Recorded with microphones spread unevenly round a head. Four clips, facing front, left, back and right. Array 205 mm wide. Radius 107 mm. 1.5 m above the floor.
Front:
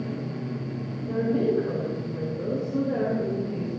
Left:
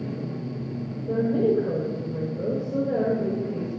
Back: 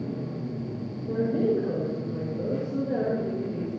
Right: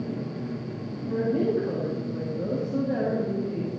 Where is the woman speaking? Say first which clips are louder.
Left 3 dB, front 1 dB; 90° left, 6.5 m.